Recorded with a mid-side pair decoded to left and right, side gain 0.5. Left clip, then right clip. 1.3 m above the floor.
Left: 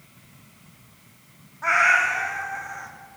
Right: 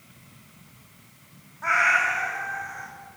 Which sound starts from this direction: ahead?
A cat meowing, at 1.6 s.